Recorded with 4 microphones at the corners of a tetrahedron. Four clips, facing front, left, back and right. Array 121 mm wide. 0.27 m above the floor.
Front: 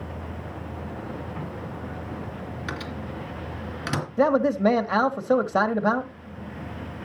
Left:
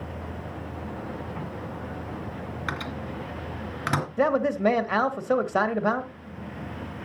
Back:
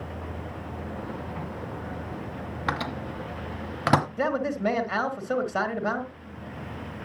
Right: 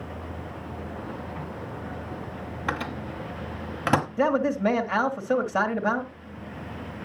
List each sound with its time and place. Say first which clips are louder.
2.7 s a microwave: right 4 dB, back 6 dB; 155° right, 1.4 m
4.2 s a man speaking: even, front 6 dB; 20° left, 1.0 m